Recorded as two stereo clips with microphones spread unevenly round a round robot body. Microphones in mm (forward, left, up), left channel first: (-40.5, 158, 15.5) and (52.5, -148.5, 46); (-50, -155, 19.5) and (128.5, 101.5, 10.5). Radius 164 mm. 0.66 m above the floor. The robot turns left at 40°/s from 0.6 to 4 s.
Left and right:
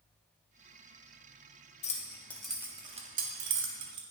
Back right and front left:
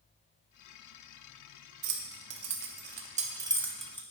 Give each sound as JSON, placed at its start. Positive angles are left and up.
{"t": 1.8, "sound": "keys jangling", "azimuth_deg": 45, "distance_m": 0.8}